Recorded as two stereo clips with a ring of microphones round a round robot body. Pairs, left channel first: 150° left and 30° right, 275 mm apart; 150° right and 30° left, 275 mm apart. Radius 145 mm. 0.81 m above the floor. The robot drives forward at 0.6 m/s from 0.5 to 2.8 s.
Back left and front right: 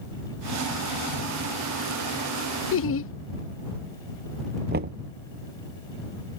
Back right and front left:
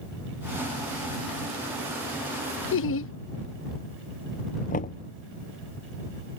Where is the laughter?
Straight behind.